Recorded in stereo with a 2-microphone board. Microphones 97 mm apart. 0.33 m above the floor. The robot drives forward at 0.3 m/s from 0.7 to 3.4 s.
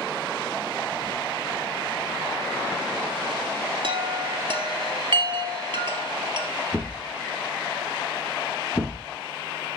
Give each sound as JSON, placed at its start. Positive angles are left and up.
{"t": 3.8, "sound": "a chime", "side_deg": -55, "distance_m": 2.0}
{"t": 6.7, "sound": "a thud", "side_deg": 10, "distance_m": 7.0}